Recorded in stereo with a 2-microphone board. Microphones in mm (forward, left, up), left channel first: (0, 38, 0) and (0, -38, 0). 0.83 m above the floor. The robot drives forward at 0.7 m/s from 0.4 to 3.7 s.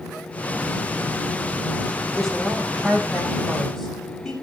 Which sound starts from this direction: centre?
A woman speaking, at 2.1 s.